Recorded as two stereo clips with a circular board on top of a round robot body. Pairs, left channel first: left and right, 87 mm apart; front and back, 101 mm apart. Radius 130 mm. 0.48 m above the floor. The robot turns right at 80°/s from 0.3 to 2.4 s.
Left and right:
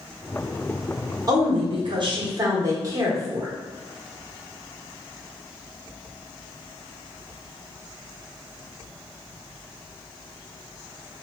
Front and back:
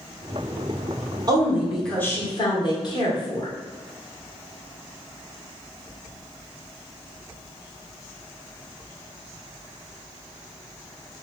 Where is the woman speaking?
130° right, 1.4 m; by 3.5 s 40° right, 1.4 m.